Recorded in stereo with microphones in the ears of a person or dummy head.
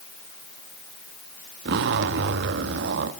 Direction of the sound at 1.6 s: 60° right (ahead or behind).